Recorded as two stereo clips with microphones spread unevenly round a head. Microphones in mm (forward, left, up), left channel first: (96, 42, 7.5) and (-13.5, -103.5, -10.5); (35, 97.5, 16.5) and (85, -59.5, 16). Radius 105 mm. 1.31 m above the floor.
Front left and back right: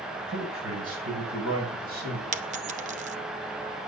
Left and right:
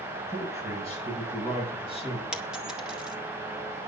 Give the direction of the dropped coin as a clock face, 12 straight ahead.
5 o'clock.